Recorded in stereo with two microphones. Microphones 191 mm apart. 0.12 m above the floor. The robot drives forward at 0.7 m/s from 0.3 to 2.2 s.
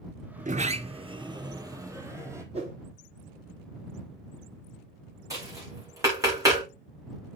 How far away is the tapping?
About 6.5 m.